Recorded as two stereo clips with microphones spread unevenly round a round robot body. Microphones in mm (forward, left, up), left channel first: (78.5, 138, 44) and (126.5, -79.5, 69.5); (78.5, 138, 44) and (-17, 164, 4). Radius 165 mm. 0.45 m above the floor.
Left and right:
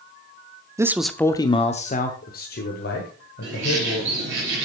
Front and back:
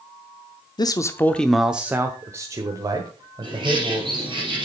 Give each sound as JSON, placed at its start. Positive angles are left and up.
{"t": 0.8, "sound": "a man speaking", "azimuth_deg": -5, "distance_m": 0.8}
{"t": 3.4, "sound": "a bird", "azimuth_deg": -130, "distance_m": 4.0}